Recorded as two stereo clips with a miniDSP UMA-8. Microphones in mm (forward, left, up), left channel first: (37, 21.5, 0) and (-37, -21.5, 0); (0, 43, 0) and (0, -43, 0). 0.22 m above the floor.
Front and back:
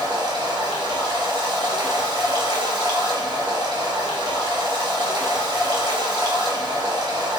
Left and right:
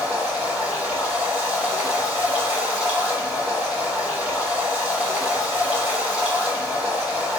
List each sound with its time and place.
0.0 s running water: 160° right, 1.4 m